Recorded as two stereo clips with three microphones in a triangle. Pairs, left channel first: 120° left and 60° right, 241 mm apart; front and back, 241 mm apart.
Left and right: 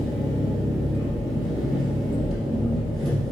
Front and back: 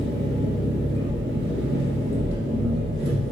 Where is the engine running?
150° right, 3 m.